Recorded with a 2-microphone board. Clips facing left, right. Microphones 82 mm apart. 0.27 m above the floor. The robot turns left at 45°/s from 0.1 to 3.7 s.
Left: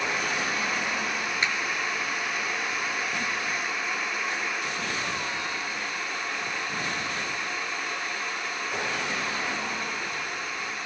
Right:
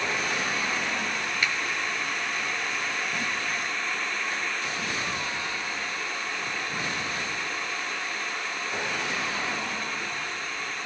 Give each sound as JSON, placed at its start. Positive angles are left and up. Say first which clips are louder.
{"t": 1.4, "sound": "a finger snap", "louder": "even", "side_deg": 30, "distance_m": 1.0}